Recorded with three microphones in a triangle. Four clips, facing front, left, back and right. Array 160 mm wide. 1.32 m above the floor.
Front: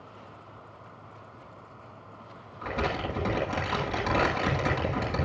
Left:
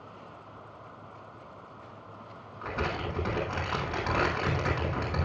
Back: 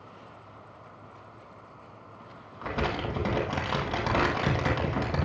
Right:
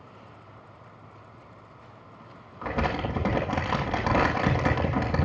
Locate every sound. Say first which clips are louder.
2.6 s crumpling: right 5 dB, even; 105° right, 8.5 m